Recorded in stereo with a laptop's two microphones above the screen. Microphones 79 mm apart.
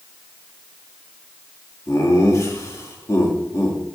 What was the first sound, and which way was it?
Laughter, 35° left (ahead or behind).